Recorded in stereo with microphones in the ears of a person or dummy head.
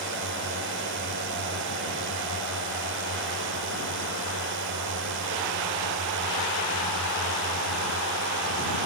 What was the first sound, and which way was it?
A drone, 60° right (ahead or behind).